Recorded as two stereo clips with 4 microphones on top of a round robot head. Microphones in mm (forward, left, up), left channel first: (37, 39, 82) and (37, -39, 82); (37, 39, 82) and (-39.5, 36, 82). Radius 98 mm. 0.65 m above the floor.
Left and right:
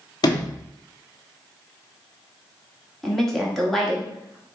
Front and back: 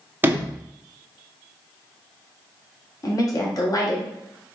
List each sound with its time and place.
0.2 s a sliding door: 115° left, 0.8 m
3.0 s a woman speaking: 5° left, 1.5 m